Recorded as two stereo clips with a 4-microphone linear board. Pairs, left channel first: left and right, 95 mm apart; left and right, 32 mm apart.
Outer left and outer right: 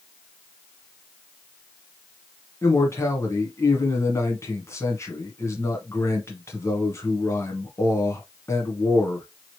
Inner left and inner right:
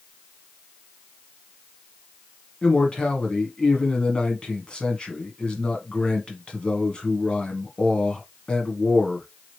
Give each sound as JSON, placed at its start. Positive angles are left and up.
{"t": 2.6, "sound": "a man speaking", "side_deg": 30, "distance_m": 1.2}